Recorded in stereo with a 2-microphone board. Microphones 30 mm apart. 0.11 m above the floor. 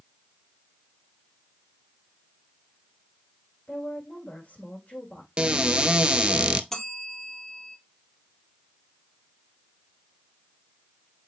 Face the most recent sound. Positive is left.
turn(degrees=15)  # may be behind; listen again after turning